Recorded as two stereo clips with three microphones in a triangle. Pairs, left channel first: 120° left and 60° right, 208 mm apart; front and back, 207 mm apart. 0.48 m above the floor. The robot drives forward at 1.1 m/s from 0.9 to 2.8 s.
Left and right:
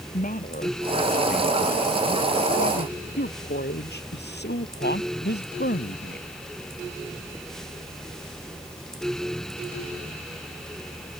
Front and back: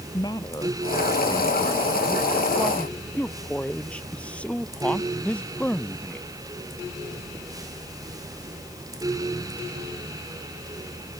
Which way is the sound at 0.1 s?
70° left.